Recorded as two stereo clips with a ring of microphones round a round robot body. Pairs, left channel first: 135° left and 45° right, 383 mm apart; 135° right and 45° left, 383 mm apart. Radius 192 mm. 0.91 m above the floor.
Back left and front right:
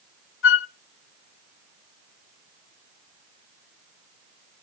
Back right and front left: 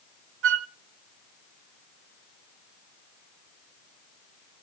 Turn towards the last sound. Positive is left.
turn(degrees=90)